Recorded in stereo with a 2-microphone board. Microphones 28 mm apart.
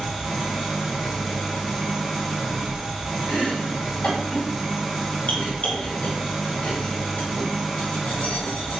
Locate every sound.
0.0 s an engine running: 5° right (ahead or behind), 0.8 m
3.3 s chopping: 45° left (ahead or behind), 1.3 m